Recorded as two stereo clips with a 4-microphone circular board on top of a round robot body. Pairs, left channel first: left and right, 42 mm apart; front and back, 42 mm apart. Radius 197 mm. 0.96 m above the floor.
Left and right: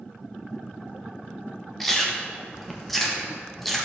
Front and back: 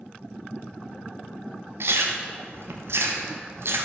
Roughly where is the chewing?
Behind.